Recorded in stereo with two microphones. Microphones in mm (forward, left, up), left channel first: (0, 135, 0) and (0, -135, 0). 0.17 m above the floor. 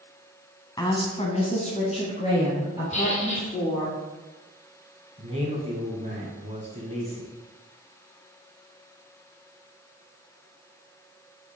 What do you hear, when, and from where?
0.8 s a woman speaking: 15° left (ahead or behind), 1.2 m; by 3.9 s 25° left (ahead or behind), 4 m
2.9 s a squeak: 25° left (ahead or behind), 2.5 m
5.2 s a man speaking: 25° right (ahead or behind), 1.5 m